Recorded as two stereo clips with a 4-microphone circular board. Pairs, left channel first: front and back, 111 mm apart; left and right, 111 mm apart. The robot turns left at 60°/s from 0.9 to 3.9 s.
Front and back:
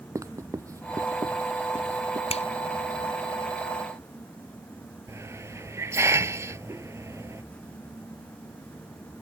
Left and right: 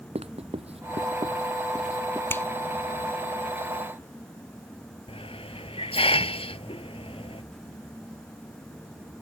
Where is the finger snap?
20° left; by 2.5 s 10° left.